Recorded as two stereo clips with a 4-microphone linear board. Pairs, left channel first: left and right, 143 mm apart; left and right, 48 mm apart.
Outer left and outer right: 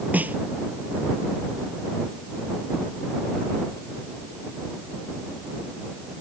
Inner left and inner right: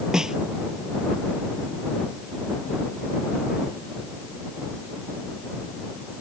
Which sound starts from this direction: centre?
A snare drum, at 0.1 s.